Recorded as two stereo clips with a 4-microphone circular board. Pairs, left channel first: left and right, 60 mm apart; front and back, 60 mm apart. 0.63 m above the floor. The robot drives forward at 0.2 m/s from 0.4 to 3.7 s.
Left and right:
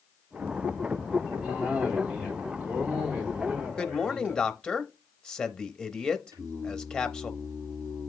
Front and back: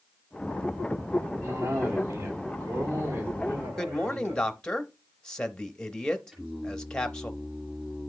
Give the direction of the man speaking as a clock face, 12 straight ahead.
10 o'clock.